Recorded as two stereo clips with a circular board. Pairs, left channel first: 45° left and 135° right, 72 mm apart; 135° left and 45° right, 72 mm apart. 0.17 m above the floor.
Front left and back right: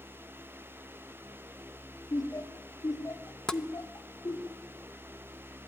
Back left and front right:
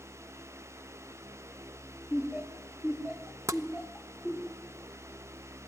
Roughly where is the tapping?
Ahead right.